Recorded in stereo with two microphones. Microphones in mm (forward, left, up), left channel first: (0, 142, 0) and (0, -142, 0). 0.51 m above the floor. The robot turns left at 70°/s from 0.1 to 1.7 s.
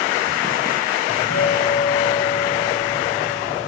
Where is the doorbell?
95° left, 3.5 m; by 3.7 s 50° left, 3.5 m.